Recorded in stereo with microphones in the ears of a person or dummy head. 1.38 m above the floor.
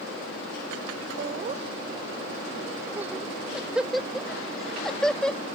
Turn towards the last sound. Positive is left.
turn(degrees=5)  # may be behind; listen again after turning